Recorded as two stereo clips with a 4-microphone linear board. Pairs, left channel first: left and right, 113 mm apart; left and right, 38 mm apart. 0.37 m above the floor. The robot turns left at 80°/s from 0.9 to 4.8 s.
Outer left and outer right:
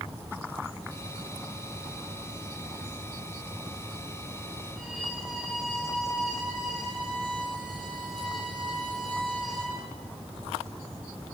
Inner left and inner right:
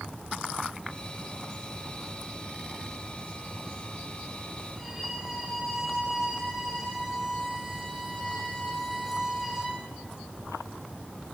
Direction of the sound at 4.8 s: 5° right (ahead or behind).